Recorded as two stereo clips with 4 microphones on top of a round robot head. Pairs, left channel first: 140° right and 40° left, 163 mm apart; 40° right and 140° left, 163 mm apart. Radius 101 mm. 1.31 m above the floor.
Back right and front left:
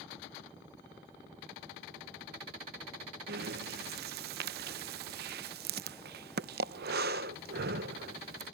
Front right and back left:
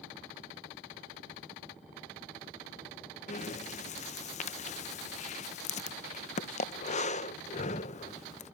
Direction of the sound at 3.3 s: 10° left.